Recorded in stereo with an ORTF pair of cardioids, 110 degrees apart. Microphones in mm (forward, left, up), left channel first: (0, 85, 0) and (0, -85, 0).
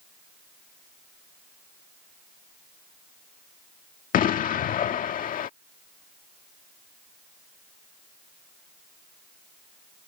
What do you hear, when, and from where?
4.1 s an explosion: 55° left